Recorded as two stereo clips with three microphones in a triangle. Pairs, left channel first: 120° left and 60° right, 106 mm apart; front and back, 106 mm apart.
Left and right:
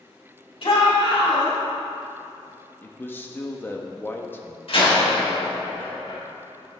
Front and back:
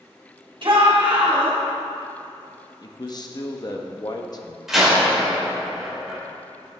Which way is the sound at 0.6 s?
145° left.